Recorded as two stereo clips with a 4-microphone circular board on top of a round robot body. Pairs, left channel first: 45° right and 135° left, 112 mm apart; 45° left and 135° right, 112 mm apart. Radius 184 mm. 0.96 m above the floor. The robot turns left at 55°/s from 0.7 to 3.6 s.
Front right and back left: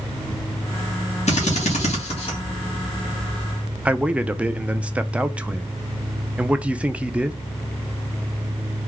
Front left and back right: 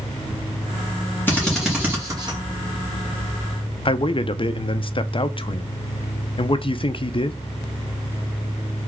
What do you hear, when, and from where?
1.3 s a drill: 25° right, 1.9 m; by 2.4 s 90° right, 1.9 m
3.9 s a man speaking: 60° left, 0.6 m